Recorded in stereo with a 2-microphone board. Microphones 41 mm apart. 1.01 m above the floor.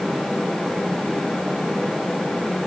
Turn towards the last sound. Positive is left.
No sound to turn to.